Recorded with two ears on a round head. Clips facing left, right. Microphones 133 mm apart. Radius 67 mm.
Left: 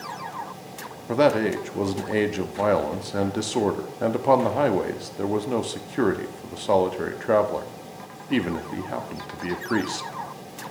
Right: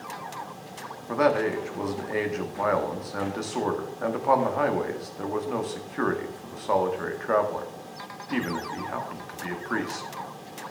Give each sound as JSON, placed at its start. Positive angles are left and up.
{"t": 1.1, "sound": "a man speaking", "side_deg": 30, "distance_m": 0.7}